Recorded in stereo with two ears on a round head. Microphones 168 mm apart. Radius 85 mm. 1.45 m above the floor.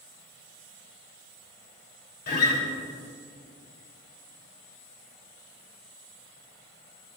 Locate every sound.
2.3 s a guitar: 50° left (ahead or behind), 3 m